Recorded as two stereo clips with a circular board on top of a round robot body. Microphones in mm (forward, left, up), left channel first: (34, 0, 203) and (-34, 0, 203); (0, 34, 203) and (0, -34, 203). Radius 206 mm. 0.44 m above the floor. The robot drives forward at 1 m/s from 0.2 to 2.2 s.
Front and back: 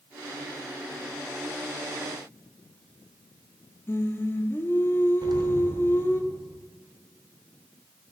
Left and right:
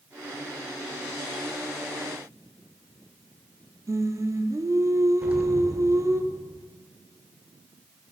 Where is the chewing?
No chewing in this recording.